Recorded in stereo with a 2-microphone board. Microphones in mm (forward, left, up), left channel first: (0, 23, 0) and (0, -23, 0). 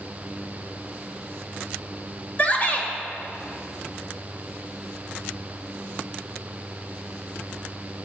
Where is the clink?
I don't hear a clink.